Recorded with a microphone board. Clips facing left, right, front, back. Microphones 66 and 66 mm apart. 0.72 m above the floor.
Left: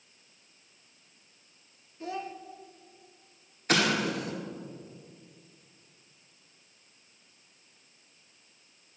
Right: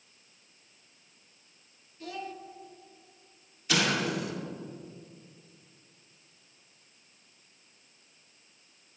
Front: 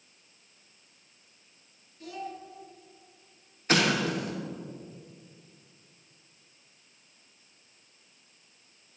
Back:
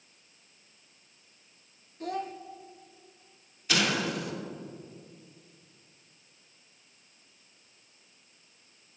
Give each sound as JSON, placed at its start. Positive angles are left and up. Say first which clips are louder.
{"t": 2.0, "sound": "a child speaking", "louder": "left 3 dB, back 5 dB", "azimuth_deg": 150, "distance_m": 0.7}
{"t": 3.7, "sound": "an explosion", "louder": "left 2 dB, front 3 dB", "azimuth_deg": 50, "distance_m": 1.5}